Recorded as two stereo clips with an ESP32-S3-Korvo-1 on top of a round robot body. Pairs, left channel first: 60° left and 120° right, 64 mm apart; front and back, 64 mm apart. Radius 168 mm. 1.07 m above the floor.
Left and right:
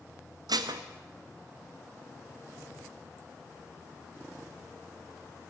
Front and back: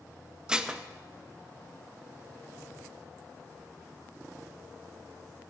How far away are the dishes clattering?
About 0.8 m.